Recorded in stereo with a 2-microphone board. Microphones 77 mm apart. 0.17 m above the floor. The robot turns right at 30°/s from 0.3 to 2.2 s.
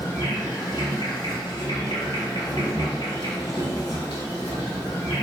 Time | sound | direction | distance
0.0 | an insect | 55° left | 1.1 m